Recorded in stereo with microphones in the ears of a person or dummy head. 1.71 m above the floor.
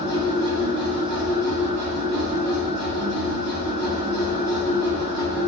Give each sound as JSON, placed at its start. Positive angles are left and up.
{"t": 0.0, "sound": "a machine running", "side_deg": -60, "distance_m": 1.3}